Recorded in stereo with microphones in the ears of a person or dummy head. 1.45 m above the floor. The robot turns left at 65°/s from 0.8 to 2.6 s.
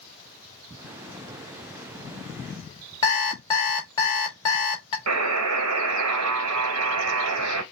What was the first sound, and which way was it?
An alarm clock, 20° left (ahead or behind).